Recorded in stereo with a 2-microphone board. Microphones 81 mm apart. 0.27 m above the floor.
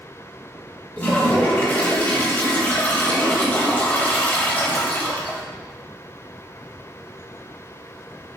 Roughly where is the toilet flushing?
Left.